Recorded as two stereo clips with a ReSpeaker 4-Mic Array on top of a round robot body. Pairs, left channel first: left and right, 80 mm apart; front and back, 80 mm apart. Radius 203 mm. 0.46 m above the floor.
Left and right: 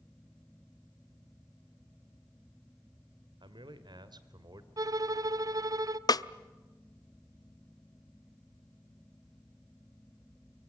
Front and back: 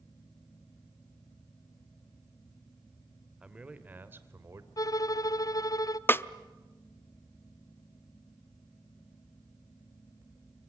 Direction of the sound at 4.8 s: 45° right.